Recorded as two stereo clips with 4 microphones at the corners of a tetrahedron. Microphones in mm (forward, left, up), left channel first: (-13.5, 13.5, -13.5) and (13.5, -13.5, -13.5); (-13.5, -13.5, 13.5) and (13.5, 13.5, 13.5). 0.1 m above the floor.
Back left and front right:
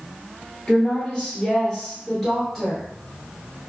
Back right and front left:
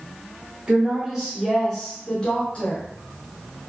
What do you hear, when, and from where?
0.7 s a woman speaking: 95° left, 1.2 m; by 2.8 s 135° right, 1.2 m